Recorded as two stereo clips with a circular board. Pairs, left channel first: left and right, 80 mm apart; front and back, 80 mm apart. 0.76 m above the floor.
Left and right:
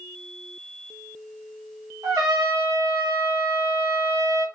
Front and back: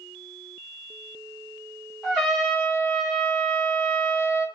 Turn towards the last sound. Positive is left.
turn(degrees=-85)